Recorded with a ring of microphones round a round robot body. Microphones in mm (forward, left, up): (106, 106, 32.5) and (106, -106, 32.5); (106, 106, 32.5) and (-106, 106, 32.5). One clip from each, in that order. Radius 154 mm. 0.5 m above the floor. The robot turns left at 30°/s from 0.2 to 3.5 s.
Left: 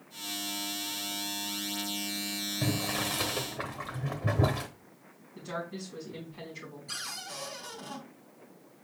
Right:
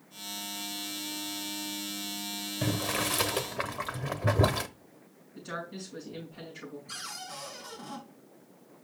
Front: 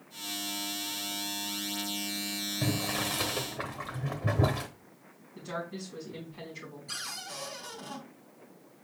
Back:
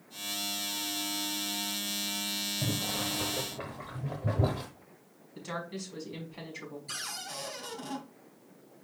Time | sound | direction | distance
2.6 | boiling | 40° right | 0.9 m
5.3 | a woman speaking | straight behind | 5 m
6.9 | a cupboard door | 135° left | 2.5 m